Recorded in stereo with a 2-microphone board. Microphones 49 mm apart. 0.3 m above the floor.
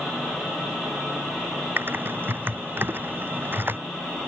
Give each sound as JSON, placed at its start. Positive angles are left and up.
{"t": 1.8, "sound": "typing on a keyboard", "side_deg": -45}